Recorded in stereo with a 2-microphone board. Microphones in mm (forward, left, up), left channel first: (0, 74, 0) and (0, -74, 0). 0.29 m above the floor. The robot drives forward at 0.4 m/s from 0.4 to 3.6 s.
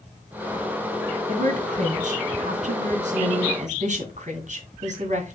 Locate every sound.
1.3 s a woman speaking: 60° right (ahead or behind), 2.5 m; by 5.4 s 55° right (ahead or behind), 2.5 m